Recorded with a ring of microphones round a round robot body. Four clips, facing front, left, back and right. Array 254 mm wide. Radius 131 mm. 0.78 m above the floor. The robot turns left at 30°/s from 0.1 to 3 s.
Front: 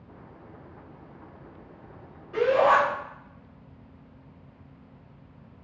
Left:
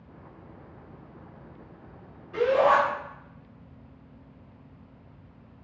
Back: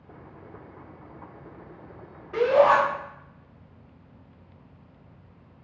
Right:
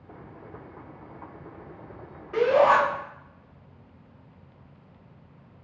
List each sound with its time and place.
2.3 s a shout: 115° right, 2.5 m; by 2.8 s 130° right, 2.5 m